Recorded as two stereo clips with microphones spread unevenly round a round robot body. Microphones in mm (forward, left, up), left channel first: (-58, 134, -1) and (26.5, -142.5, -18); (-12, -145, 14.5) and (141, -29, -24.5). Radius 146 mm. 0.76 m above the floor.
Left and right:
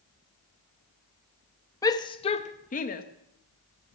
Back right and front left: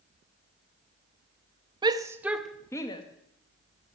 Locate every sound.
1.8 s a shout: 30° left, 0.7 m; by 3.0 s 150° left, 0.7 m